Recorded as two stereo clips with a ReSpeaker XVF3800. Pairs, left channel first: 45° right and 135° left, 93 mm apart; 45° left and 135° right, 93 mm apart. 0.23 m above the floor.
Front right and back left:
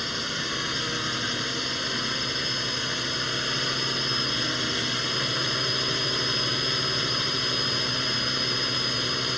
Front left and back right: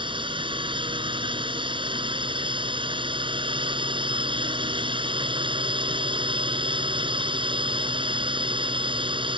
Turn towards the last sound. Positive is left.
turn(degrees=-135)